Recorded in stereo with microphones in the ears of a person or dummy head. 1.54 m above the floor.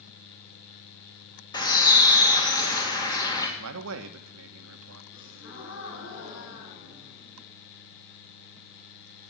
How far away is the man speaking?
About 1.3 m.